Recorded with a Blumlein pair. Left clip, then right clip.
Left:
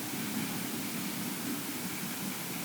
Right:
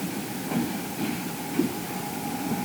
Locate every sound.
Only background noise.